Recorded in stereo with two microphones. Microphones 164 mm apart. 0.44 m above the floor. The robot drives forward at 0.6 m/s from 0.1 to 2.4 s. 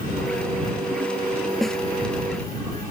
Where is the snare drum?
Centre (ahead or behind).